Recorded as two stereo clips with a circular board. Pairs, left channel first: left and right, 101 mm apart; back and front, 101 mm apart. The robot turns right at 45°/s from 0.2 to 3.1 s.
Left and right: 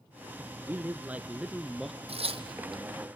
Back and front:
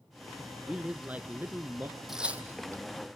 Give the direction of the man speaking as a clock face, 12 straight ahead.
2 o'clock.